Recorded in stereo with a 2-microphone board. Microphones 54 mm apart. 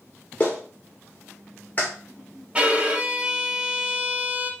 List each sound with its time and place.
0.4 s a clap: 30° left (ahead or behind), 1.8 m
2.5 s a violin: 20° right (ahead or behind), 0.7 m